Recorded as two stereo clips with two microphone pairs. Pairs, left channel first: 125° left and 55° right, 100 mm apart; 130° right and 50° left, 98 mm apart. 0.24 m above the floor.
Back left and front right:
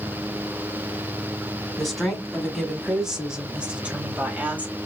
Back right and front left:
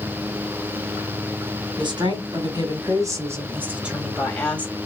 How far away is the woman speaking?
About 2.0 m.